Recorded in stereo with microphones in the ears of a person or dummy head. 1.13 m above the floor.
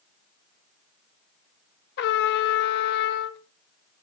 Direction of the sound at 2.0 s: 60° left (ahead or behind).